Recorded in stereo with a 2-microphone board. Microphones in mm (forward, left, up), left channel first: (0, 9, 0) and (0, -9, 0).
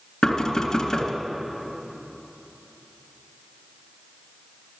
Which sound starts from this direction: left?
Knocking, at 0.2 s.